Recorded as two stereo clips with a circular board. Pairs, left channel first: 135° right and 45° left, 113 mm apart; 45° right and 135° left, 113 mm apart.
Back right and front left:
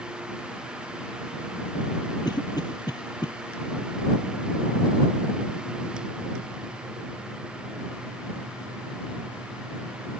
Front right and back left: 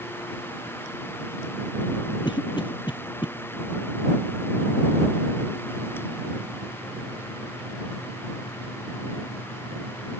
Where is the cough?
85° right.